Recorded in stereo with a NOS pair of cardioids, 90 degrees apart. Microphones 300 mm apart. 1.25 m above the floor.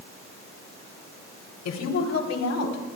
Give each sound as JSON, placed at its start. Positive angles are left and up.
{"t": 1.6, "sound": "a woman speaking", "azimuth_deg": 60, "distance_m": 3.5}